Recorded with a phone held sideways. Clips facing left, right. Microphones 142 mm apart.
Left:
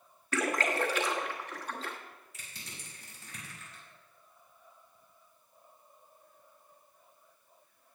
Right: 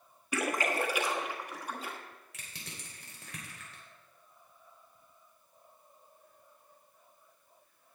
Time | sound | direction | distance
0.3 | a splash | 10° right (ahead or behind) | 1.3 m
2.3 | crushing | 85° right | 3.5 m